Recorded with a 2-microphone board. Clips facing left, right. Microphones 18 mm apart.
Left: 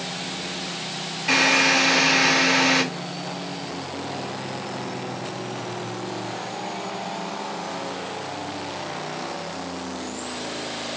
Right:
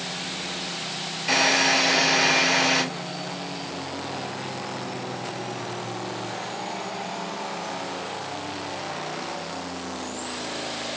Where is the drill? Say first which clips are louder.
Left 2 dB; 10° left (ahead or behind), 3 m.